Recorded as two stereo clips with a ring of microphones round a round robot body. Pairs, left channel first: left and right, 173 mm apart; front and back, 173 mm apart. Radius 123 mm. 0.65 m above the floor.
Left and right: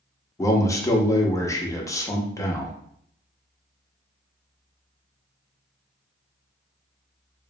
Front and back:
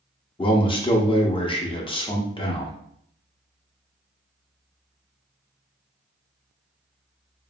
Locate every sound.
0.4 s a man speaking: 30° left, 0.6 m